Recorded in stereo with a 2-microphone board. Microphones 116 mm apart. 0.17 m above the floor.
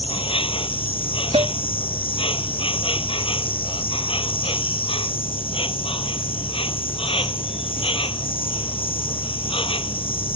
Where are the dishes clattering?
45° right (ahead or behind).